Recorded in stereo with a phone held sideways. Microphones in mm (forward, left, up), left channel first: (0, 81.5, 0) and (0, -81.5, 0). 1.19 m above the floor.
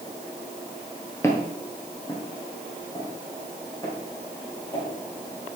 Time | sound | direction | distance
1.2 | footsteps | 15° left (ahead or behind) | 1.4 m